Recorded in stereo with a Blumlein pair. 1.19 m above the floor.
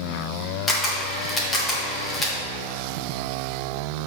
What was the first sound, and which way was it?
A camera shutter, 15° left.